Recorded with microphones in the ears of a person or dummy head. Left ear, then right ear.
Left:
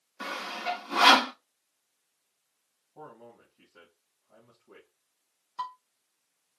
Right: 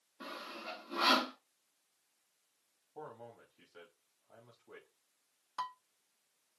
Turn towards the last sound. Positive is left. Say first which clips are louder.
# left 4 dB
turn(degrees=-70)  # may be behind; listen again after turning